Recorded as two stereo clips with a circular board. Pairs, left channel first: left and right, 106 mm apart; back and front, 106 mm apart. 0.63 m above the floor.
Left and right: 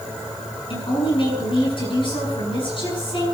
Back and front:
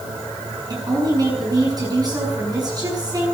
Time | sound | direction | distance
0.7 | a woman speaking | 50° left | 8 m